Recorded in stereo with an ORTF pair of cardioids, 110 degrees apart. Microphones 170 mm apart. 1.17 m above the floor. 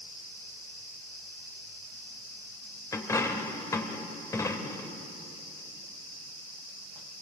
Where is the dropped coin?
20° left, 2 m.